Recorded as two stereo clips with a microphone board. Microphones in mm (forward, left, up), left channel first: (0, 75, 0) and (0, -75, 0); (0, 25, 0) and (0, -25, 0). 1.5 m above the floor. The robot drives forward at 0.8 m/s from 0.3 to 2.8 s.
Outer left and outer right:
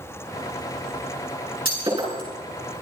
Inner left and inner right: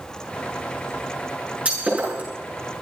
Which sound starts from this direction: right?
Breaking glass, at 1.6 s.